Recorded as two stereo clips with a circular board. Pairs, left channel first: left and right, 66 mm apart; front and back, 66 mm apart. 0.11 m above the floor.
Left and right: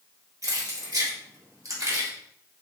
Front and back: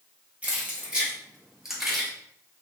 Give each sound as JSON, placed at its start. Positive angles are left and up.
{"t": 0.4, "sound": "keys jangling", "azimuth_deg": -115, "distance_m": 2.0}